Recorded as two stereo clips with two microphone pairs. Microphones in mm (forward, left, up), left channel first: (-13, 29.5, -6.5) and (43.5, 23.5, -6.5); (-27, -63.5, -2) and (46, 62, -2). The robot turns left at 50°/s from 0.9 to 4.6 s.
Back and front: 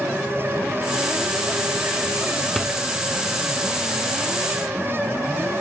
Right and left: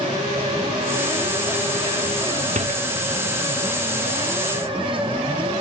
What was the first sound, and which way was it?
A door slam, 90° left.